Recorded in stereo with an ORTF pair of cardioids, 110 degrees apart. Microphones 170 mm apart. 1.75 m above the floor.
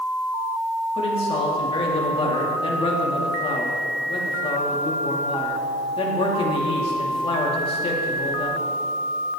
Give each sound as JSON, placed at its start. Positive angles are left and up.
{"t": 0.9, "sound": "a man speaking", "azimuth_deg": 35, "distance_m": 2.5}